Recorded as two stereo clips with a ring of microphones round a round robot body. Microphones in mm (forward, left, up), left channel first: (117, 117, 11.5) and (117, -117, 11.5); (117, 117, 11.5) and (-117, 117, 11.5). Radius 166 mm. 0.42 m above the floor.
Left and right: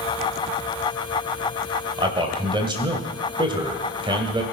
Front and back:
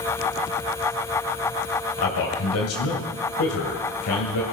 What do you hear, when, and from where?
2.0 s a man speaking: 20° right, 2.0 m